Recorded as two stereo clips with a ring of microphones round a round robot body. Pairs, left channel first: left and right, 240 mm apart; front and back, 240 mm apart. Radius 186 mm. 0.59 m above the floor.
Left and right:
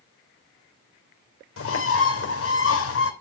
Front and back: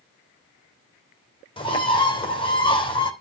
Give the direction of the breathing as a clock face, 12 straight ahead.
I don't hear breathing.